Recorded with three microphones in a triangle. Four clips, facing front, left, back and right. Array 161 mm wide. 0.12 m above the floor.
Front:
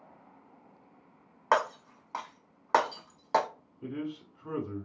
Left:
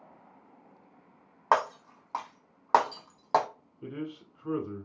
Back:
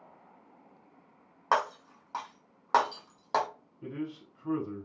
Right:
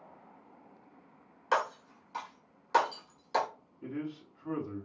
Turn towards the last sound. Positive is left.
turn(degrees=85)